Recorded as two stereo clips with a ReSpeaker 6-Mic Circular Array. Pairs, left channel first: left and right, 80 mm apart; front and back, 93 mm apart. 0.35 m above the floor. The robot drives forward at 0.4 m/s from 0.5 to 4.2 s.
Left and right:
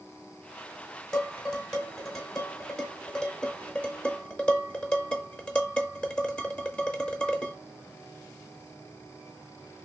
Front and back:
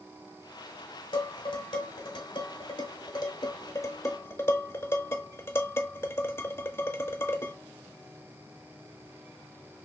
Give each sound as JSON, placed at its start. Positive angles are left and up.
{"t": 1.1, "sound": "dishes clattering", "azimuth_deg": 5, "distance_m": 1.7}